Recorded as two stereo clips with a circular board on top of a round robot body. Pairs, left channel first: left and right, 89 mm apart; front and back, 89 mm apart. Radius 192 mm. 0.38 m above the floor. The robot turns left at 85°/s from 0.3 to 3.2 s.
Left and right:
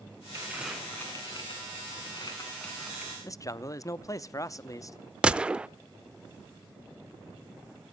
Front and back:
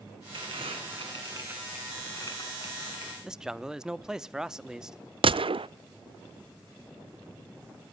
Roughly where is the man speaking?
Left.